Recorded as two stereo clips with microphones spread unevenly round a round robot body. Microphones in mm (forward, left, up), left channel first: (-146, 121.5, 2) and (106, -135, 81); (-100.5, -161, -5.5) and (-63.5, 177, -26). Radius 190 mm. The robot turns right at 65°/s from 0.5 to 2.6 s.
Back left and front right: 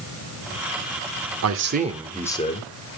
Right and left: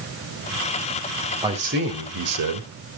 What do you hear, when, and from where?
1.4 s a man speaking: 5° left, 1.8 m; by 2.9 s 80° left, 1.8 m